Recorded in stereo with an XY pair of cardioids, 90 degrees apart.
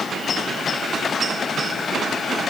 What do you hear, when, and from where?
Only background noise.